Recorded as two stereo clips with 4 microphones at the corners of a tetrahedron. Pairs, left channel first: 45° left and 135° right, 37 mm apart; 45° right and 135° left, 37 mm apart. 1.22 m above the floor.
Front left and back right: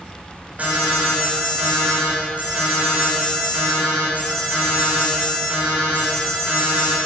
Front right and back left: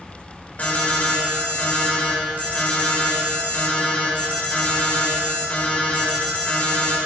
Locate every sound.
0.6 s an alarm: 85° right, 6.5 m